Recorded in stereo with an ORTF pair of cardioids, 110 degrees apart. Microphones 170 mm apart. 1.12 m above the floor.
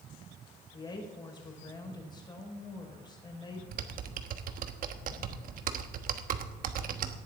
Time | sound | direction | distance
0.7 | a woman speaking | 25° left | 4.5 m
3.7 | typing on a keyboard | 55° right | 1.1 m